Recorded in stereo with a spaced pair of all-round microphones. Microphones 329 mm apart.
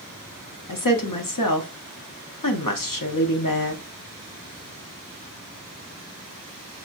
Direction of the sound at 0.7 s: 75° left (ahead or behind).